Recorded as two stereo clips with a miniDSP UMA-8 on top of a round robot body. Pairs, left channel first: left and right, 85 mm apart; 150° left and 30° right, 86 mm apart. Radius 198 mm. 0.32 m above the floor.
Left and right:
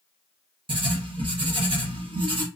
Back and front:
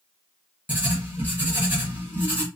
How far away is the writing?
About 2 m.